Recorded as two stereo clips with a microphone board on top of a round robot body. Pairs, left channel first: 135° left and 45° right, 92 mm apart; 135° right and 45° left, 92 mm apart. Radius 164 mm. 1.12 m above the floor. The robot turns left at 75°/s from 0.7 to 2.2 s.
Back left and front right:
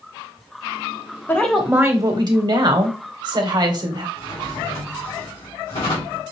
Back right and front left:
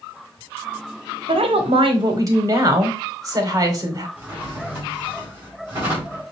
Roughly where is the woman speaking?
Ahead left.